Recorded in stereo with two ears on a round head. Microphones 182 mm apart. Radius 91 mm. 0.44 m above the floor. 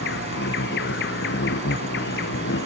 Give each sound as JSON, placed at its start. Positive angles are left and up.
{"t": 0.0, "sound": "an insect", "side_deg": 60}